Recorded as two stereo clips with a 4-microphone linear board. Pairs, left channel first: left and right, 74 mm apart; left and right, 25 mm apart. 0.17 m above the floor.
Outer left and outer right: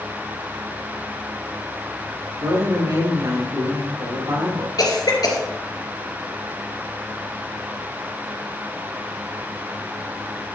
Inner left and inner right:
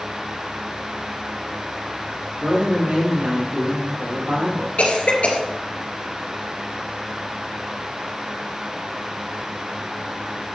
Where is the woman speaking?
75° right (ahead or behind), 5.5 m.